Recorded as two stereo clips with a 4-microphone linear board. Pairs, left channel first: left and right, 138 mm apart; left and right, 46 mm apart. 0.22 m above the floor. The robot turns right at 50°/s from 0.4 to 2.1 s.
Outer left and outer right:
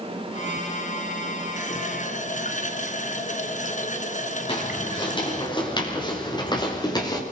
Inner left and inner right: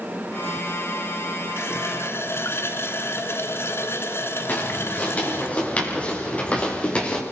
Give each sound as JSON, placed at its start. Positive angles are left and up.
{"t": 1.6, "sound": "a running tap", "side_deg": 60, "distance_m": 1.8}
{"t": 4.5, "sound": "footsteps", "side_deg": 35, "distance_m": 8.0}